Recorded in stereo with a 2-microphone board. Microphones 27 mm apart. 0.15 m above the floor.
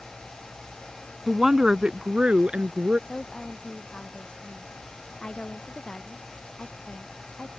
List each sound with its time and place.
1.3 s a woman speaking: 10° right (ahead or behind); by 3.0 s 50° right (ahead or behind)
3.1 s a woman speaking: 35° left (ahead or behind)